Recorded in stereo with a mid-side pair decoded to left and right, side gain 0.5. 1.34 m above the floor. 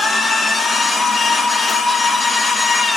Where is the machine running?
40° left, 1.8 m.